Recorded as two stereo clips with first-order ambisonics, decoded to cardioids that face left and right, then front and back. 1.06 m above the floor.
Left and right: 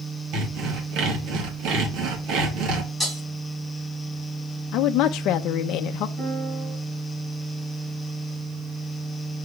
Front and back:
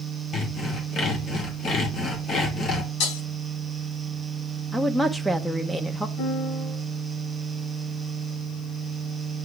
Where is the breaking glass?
5° right, 5.5 m.